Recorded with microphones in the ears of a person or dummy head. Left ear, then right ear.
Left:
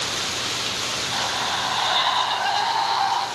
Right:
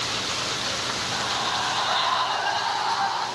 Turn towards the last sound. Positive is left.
turn(degrees=25)  # may be behind; listen again after turning